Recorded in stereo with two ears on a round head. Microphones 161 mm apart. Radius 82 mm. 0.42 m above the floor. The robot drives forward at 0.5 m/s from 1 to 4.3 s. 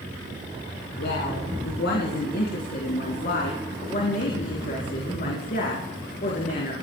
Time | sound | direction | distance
1.0 | a woman speaking | 70° left (ahead or behind) | 3.5 m